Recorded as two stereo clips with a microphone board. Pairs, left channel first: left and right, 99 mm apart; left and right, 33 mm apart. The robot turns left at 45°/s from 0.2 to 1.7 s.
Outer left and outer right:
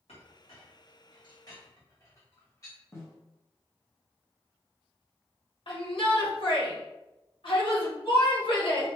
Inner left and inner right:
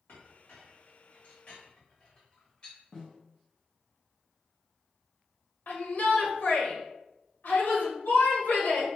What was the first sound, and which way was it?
A clink, 75° left (ahead or behind).